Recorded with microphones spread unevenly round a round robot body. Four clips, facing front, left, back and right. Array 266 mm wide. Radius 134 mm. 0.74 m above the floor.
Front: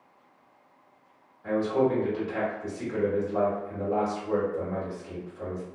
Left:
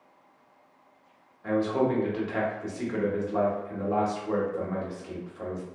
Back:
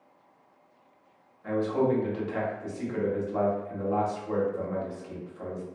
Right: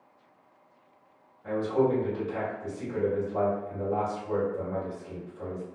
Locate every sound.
1.4 s a man speaking: 80° left, 1.2 m